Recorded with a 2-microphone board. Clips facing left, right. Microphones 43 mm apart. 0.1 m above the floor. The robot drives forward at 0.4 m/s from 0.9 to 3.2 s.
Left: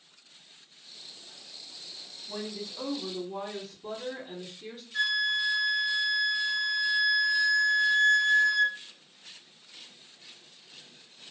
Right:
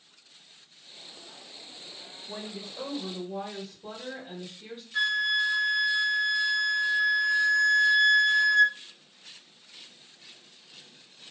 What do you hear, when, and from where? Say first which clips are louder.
2.3 s a woman speaking: left 2 dB; 35° right (ahead or behind), 2.0 m
4.9 s a flute: right 2 dB; 40° right (ahead or behind), 1.0 m